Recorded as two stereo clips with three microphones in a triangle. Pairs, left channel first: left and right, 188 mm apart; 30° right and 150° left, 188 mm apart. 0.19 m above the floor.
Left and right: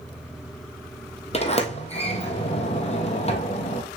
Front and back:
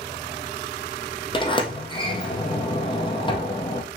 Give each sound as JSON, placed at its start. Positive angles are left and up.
{"t": 1.3, "sound": "a sliding door", "azimuth_deg": 35, "distance_m": 1.3}